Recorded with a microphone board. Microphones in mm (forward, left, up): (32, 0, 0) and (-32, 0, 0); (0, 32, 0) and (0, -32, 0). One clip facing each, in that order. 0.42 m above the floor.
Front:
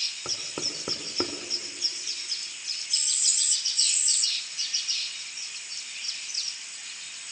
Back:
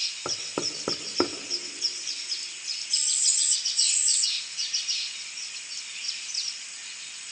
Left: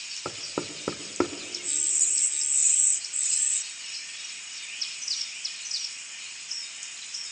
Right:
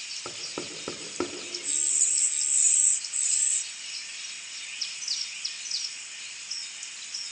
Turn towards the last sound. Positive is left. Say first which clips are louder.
# back 6 dB, left 5 dB
turn(degrees=140)